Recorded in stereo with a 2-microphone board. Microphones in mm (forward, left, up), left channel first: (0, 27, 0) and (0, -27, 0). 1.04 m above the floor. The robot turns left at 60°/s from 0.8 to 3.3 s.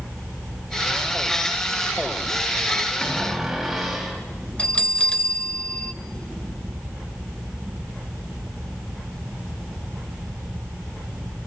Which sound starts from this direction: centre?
A cupboard door, at 3.0 s.